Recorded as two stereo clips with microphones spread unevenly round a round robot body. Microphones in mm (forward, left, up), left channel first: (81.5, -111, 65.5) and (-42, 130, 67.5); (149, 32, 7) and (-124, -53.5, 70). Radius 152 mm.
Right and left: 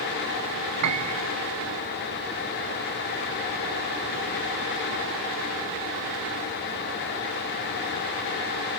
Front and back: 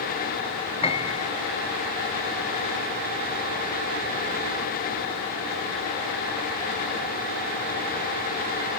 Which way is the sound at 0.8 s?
90° left.